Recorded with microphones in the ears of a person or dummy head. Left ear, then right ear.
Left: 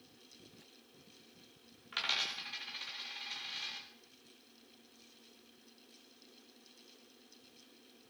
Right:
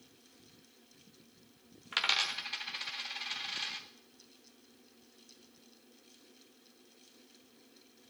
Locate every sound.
1.9 s a dropped coin: 20° right (ahead or behind), 1.0 m